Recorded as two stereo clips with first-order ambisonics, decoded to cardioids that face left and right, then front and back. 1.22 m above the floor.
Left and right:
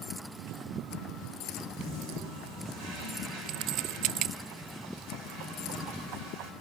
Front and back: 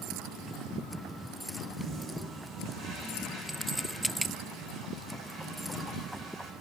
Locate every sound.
1.7 s a toilet flushing: 135° right, 10 m